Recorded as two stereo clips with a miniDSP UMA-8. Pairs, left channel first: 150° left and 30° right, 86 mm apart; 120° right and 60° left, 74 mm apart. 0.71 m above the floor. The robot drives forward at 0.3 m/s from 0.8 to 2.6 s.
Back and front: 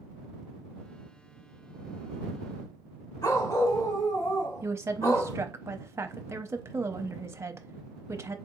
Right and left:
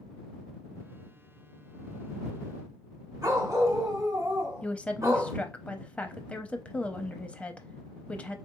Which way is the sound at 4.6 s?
60° right.